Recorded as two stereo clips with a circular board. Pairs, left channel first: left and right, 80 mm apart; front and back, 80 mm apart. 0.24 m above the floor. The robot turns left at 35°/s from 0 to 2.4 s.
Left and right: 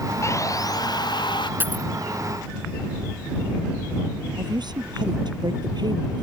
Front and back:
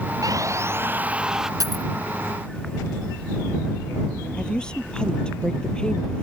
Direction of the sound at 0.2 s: 140° left.